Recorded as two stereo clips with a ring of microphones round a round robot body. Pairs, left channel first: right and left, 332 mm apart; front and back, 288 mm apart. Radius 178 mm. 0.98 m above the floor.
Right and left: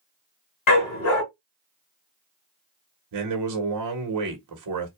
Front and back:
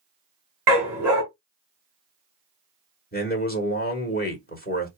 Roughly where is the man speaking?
Ahead left.